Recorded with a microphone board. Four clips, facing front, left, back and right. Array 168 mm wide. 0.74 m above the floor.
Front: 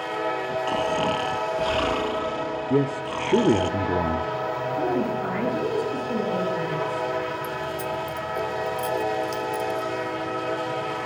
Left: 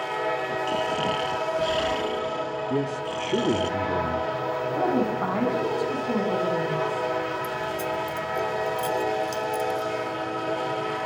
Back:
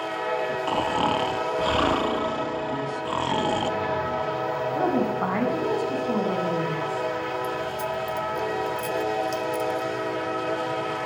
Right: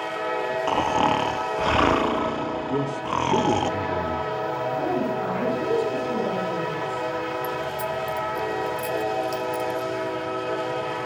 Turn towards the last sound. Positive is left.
turn(degrees=-55)